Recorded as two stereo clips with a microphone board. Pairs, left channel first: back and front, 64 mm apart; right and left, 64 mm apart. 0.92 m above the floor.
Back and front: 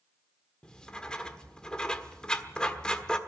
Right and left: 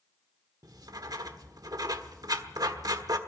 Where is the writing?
105° left, 1.3 m.